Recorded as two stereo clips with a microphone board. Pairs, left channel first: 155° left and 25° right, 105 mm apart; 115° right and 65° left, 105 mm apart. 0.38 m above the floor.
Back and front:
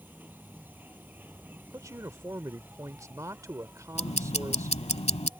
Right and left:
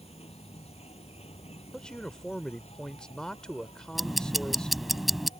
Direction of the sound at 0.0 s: 95° right.